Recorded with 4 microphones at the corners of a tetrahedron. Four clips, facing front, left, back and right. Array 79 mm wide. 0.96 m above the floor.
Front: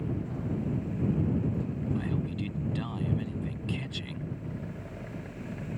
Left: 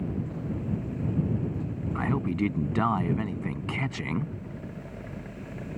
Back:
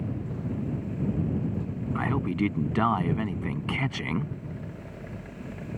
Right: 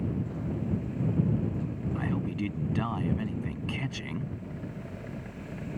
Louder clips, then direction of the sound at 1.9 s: Left 5 dB, back 6 dB; 145° left.